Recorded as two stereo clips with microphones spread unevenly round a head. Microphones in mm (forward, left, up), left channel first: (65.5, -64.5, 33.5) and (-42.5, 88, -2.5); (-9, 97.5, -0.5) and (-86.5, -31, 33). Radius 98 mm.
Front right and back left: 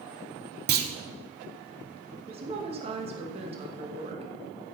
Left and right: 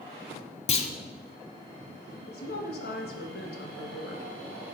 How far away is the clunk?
About 1.6 m.